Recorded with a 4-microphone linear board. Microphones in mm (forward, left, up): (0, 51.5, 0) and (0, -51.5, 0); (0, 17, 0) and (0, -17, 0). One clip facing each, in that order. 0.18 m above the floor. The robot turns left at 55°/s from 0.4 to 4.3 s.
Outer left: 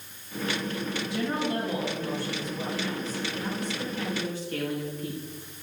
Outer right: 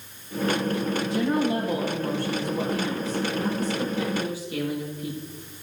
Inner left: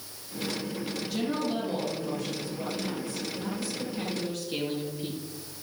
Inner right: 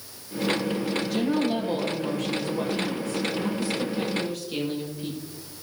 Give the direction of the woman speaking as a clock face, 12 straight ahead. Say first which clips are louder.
Outer right 5 dB, inner right 4 dB; 12 o'clock.